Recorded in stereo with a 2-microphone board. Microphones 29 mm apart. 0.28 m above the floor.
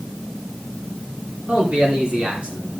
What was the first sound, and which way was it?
A man speaking, 30° right (ahead or behind).